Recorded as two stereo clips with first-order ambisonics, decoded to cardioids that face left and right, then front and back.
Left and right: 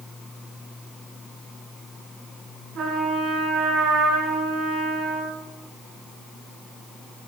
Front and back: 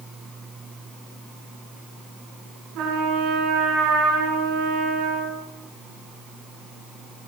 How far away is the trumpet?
About 7.5 m.